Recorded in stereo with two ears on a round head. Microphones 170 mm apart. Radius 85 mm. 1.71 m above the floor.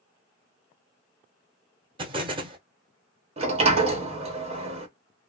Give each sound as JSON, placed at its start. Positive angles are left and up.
{"t": 2.0, "sound": "an explosion", "side_deg": -25, "distance_m": 0.7}
{"t": 3.4, "sound": "a sliding door", "side_deg": -35, "distance_m": 1.0}